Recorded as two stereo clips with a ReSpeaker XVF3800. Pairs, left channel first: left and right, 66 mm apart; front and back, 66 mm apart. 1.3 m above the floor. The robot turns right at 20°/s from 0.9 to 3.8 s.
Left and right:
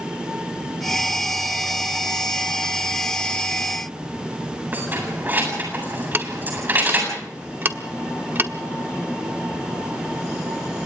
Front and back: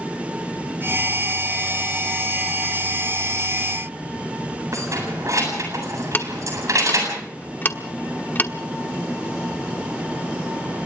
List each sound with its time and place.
4.7 s keys jangling: 150° right, 8 m
6.1 s ticking: 45° right, 1.2 m